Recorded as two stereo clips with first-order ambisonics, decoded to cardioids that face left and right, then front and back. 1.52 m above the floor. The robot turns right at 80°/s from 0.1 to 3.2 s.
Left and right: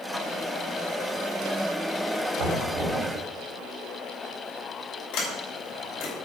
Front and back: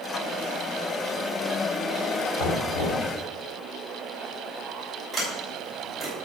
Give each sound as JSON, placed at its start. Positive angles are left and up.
{"t": 2.4, "sound": "knocking", "azimuth_deg": -55, "distance_m": 5.0}
{"t": 5.1, "sound": "a sliding door", "azimuth_deg": 85, "distance_m": 6.0}